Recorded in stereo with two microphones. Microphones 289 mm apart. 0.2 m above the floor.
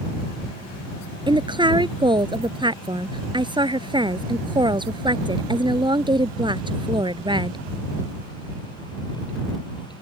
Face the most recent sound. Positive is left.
turn(degrees=-15)  # may be behind; listen again after turning